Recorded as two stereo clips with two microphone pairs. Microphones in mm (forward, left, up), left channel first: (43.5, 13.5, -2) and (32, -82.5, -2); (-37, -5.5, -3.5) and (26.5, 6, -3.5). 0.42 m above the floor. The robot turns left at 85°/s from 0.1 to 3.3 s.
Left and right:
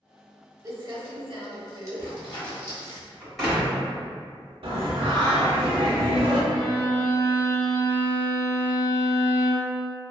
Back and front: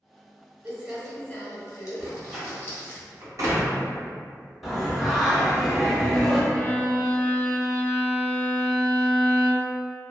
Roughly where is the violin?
Behind left.